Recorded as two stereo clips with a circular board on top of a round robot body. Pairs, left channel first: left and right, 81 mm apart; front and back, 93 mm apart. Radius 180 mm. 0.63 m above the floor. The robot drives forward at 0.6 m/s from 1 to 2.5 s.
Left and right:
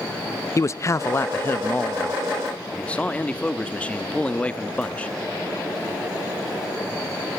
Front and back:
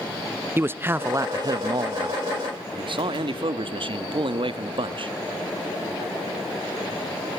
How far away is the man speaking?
About 0.7 m.